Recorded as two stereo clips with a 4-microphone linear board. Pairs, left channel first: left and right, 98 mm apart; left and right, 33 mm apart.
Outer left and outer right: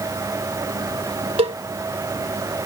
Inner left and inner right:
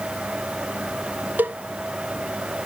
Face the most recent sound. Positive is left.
turn(degrees=-65)  # may be behind; listen again after turning